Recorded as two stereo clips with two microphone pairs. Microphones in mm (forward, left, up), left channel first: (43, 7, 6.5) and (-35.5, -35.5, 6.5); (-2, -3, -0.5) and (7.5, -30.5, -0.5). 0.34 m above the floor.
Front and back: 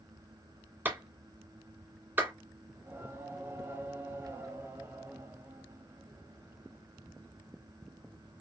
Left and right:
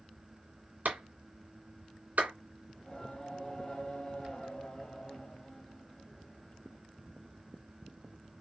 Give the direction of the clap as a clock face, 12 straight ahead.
3 o'clock.